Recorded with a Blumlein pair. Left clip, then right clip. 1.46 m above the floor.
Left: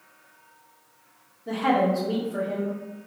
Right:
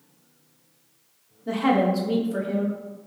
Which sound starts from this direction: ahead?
A woman speaking, at 1.5 s.